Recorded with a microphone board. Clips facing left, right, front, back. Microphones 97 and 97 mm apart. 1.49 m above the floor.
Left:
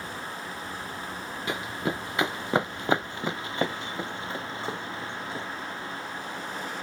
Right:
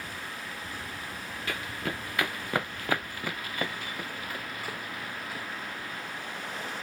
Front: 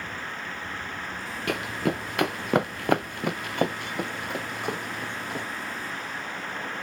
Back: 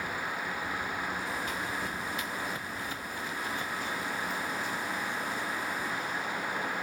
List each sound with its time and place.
1.5 s running footsteps: 20° left; by 5.5 s 30° left